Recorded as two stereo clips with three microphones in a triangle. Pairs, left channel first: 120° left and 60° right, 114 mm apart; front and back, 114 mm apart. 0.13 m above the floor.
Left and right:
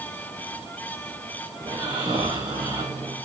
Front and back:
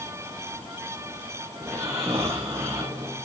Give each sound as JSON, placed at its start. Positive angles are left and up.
{"t": 1.6, "sound": "snoring", "azimuth_deg": -110, "distance_m": 6.5}